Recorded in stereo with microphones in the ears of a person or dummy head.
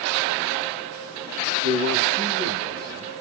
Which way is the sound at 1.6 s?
45° right (ahead or behind).